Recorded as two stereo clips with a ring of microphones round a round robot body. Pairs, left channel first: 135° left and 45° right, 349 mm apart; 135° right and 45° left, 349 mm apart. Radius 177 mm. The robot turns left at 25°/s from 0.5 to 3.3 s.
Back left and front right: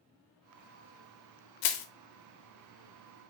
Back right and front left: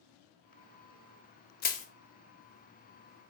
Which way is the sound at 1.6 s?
160° left.